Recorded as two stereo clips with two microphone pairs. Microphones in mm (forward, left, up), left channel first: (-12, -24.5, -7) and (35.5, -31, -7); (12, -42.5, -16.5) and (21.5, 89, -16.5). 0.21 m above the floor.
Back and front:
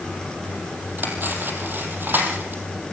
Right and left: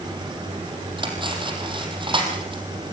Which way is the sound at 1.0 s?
35° left.